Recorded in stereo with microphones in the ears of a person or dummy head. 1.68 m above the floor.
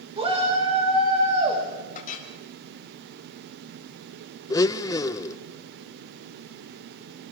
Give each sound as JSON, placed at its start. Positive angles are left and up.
{"t": 0.2, "sound": "a shout", "side_deg": -30, "distance_m": 6.0}
{"t": 1.9, "sound": "a clink", "side_deg": 50, "distance_m": 5.0}
{"t": 4.5, "sound": "a blender", "side_deg": 20, "distance_m": 1.0}